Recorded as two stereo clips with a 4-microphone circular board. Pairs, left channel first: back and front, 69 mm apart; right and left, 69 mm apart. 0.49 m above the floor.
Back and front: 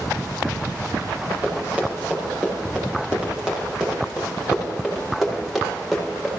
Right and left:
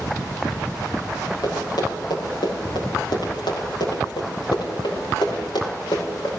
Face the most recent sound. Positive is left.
turn(degrees=-85)